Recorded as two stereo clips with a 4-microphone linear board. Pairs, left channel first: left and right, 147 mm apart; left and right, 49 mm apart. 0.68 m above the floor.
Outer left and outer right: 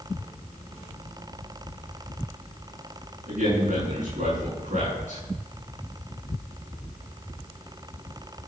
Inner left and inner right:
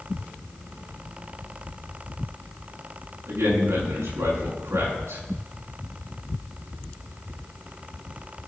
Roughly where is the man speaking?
Right.